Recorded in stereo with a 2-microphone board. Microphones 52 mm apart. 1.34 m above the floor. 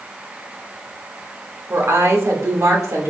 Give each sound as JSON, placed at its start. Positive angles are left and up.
{"t": 1.7, "sound": "a woman speaking", "side_deg": -75, "distance_m": 1.6}